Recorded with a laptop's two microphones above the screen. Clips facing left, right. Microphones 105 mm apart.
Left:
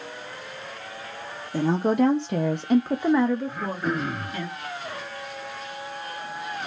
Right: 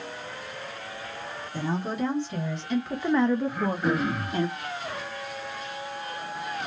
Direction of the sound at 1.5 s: 85° left.